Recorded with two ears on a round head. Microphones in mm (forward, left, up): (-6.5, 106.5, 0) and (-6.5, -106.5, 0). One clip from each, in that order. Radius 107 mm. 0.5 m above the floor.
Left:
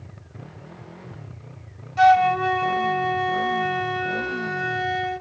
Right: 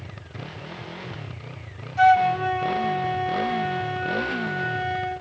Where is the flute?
25° left (ahead or behind).